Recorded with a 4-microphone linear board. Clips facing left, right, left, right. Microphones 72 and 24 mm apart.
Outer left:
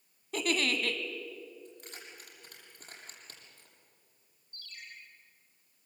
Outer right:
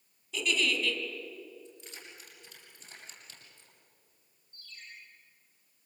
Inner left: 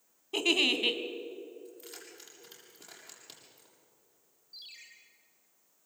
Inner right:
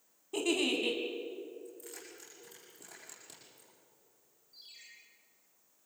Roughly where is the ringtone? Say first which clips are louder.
Outer left 2 dB, inner left 5 dB; left.